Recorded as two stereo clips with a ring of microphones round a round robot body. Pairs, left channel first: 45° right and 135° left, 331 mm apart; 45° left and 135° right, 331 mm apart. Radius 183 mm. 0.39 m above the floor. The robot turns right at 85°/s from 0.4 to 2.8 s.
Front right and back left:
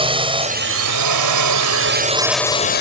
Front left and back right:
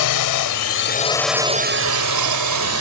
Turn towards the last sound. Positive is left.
turn(degrees=-100)